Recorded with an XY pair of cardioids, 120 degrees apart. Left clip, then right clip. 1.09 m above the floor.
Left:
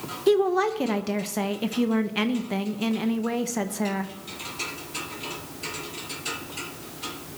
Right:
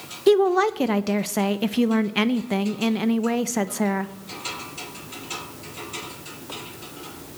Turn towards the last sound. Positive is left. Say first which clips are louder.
# right 4 dB
turn(degrees=-30)